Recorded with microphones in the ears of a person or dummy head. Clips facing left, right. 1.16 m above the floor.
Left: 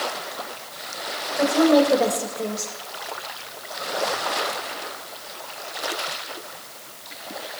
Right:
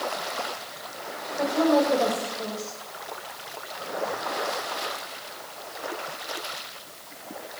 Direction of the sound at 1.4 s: 50° left (ahead or behind).